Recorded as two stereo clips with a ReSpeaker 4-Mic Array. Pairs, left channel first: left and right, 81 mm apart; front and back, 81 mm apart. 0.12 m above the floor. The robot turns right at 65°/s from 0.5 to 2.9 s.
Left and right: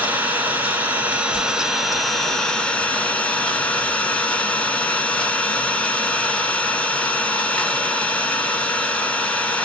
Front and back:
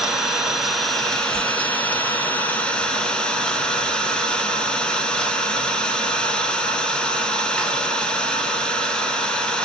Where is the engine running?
105° right, 0.7 m; by 9.7 s 50° left, 0.7 m.